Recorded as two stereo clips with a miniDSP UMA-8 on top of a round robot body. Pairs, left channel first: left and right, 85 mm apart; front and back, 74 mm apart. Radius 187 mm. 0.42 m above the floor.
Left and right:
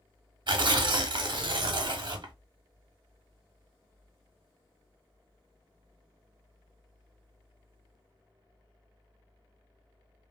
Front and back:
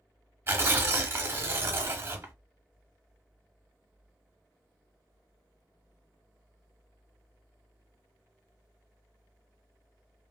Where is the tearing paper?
120° right, 0.6 m.